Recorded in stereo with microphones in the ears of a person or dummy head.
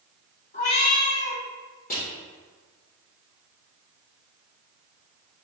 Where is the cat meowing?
45° left (ahead or behind), 1.1 m.